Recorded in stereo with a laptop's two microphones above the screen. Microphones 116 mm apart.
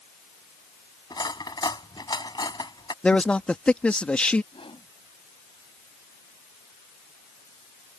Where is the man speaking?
10° left (ahead or behind).